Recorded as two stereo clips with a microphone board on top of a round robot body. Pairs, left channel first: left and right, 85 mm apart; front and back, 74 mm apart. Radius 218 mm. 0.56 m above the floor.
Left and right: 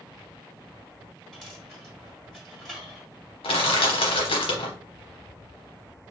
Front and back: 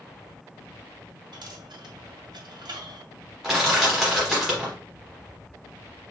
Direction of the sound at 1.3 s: 175° left.